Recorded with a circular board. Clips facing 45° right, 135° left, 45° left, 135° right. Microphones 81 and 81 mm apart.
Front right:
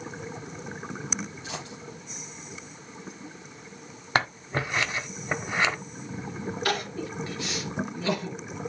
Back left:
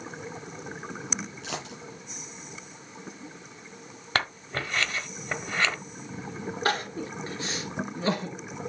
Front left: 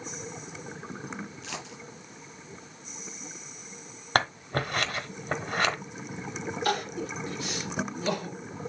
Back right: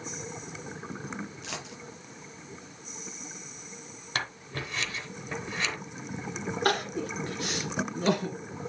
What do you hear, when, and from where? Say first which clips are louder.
1.4 s a dropped coin: back left 1 dB, even; 145° left, 4.5 m
4.2 s scissors: front right 3 dB, front left 9 dB; 25° left, 0.8 m
6.7 s crying: back left 2 dB, back right 2 dB; 170° right, 2 m